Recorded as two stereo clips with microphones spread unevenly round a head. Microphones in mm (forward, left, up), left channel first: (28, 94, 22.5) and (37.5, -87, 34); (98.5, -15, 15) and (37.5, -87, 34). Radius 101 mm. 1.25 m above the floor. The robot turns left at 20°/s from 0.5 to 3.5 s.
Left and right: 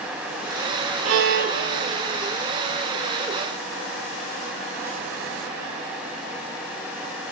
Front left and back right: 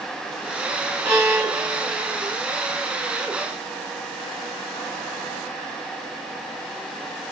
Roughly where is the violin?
Right.